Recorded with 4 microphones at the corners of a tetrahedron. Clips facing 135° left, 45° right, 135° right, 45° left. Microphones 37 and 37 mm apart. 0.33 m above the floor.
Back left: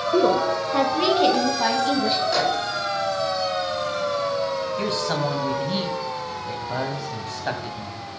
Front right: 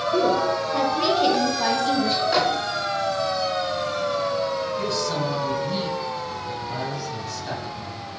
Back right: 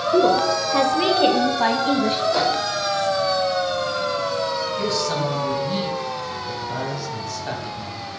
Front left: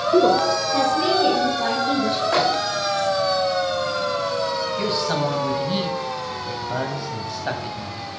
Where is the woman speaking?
100° left, 0.9 m; by 2.2 s 145° right, 2.5 m.